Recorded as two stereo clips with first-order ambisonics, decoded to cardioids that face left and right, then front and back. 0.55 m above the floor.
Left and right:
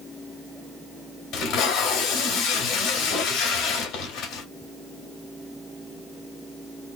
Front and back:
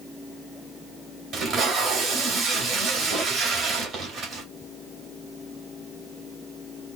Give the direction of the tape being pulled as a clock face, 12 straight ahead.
8 o'clock.